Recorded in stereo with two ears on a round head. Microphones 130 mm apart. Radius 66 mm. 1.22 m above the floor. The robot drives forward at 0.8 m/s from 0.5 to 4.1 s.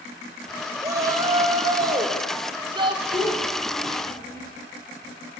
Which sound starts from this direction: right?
A shout, at 0.8 s.